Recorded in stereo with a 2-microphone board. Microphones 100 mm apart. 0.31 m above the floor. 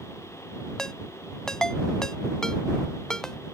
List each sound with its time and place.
0.8 s a ringtone: 5° left (ahead or behind)